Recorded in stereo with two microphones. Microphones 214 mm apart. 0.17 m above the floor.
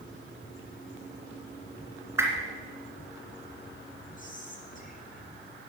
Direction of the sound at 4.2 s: 40° left (ahead or behind).